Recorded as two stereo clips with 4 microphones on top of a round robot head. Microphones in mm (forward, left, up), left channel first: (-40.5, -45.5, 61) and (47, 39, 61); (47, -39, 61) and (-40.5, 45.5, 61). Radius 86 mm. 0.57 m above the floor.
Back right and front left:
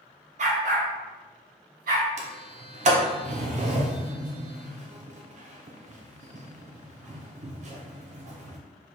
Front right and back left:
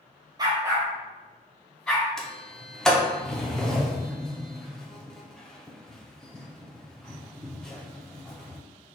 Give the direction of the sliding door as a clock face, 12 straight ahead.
11 o'clock.